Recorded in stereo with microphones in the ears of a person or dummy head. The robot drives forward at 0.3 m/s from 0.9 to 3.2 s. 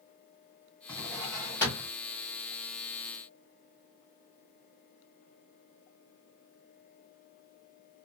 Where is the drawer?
15° left (ahead or behind), 1.5 m; by 1.9 s 10° left (ahead or behind), 1.8 m.